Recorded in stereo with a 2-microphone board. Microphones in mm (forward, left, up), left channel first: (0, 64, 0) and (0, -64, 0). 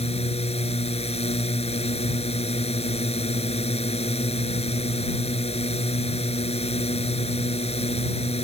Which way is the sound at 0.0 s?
55° left (ahead or behind).